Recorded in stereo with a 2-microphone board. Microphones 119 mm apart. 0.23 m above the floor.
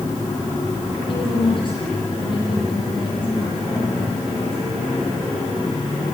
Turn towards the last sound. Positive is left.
turn(degrees=40)  # may be behind; listen again after turning